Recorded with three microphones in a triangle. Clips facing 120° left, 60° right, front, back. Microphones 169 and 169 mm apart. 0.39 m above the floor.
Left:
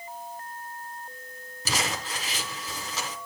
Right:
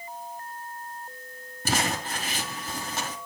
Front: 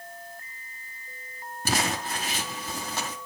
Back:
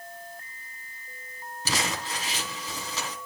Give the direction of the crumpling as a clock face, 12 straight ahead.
1 o'clock.